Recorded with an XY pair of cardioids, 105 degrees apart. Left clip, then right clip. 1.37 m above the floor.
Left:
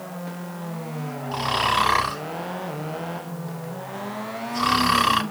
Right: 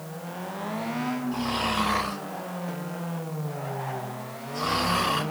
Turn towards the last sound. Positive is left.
turn(degrees=65)